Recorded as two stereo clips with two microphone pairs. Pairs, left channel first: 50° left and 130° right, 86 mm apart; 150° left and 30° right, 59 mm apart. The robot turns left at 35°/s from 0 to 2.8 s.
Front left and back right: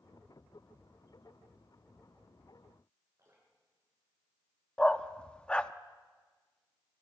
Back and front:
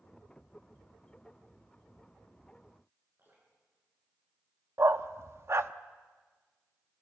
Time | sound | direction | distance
3.2 | dripping | 80° right | 7.5 m
4.8 | a dog barking | 25° right | 0.7 m